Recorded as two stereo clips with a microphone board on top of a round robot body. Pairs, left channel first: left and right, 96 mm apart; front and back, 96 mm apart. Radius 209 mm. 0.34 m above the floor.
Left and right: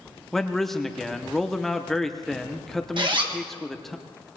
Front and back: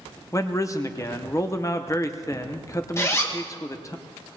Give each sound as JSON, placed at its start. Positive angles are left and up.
{"t": 0.3, "sound": "a man speaking", "azimuth_deg": 5, "distance_m": 1.1}
{"t": 3.0, "sound": "a zipper", "azimuth_deg": -60, "distance_m": 2.0}